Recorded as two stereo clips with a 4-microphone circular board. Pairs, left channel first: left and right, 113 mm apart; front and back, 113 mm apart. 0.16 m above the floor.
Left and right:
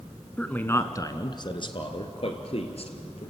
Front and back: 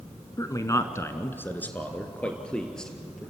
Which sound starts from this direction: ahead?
A man speaking, at 0.4 s.